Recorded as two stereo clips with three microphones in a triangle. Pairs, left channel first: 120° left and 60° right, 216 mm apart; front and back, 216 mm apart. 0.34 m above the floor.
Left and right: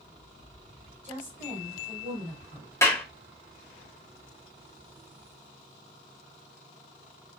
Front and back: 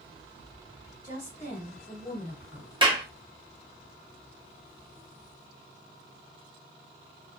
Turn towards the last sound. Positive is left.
turn(degrees=175)